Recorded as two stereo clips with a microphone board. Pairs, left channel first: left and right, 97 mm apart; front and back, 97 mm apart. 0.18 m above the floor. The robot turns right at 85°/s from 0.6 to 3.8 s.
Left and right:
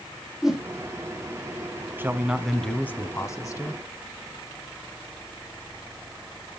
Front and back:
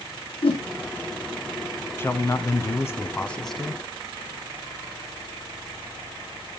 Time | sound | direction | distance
0.4 | a whoosh | 5° right | 3.5 m
2.0 | a man speaking | 45° right | 1.3 m